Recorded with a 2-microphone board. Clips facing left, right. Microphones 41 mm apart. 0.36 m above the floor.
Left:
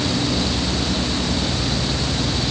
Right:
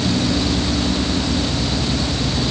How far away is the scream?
I don't hear a scream.